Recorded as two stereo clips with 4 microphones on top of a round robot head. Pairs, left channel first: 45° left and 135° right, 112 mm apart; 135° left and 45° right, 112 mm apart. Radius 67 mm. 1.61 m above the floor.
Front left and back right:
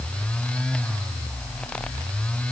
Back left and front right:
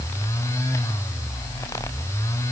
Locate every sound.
Only background noise.